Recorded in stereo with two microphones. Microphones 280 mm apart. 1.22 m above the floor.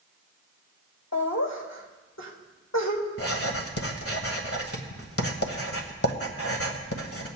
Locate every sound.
1.1 s laughter: 70° left (ahead or behind), 3 m
3.2 s writing: 55° left (ahead or behind), 1.6 m